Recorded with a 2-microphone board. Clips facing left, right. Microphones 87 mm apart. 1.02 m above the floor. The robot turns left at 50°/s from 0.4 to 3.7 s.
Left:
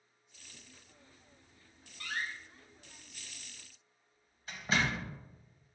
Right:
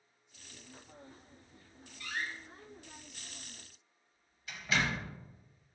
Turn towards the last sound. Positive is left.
turn(degrees=35)  # may be behind; listen again after turning